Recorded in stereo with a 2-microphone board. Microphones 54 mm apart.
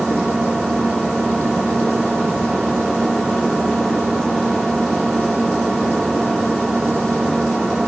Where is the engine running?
15° right (ahead or behind), 1.7 m.